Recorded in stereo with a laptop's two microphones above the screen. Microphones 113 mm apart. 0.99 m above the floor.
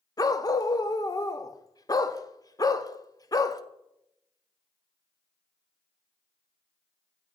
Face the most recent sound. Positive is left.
turn(degrees=35)  # may be behind; listen again after turning